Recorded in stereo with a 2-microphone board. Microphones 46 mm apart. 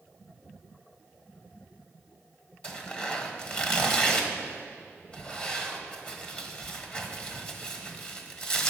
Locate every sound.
2.6 s tearing paper: 30° left (ahead or behind), 1.2 m